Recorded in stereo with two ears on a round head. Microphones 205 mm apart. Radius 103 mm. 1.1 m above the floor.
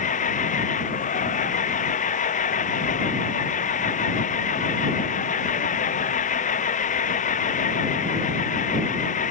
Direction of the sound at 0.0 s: 35° left (ahead or behind).